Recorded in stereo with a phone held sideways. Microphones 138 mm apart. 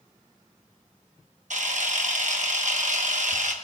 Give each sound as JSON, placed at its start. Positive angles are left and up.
{"t": 1.5, "sound": "a camera shutter", "side_deg": -60, "distance_m": 1.0}